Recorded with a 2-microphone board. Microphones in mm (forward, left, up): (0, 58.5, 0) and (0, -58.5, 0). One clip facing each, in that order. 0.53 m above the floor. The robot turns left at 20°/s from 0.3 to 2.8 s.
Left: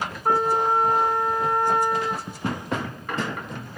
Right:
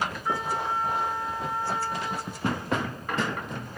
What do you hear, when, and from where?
0.2 s a trumpet: 125° left, 1.3 m; by 2.3 s 90° left, 1.3 m